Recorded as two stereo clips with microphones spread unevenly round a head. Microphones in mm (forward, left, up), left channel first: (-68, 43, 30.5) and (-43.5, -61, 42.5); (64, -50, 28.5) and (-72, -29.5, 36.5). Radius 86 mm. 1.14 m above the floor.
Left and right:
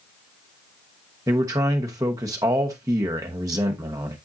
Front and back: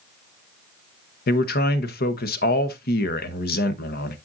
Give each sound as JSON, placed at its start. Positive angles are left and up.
{"t": 1.3, "sound": "a man speaking", "azimuth_deg": -10, "distance_m": 0.9}